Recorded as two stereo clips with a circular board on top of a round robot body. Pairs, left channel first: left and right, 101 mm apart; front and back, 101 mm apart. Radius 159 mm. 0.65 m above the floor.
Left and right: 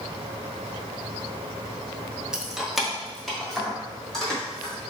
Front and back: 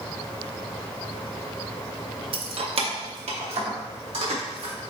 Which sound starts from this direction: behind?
Keys jangling, at 2.3 s.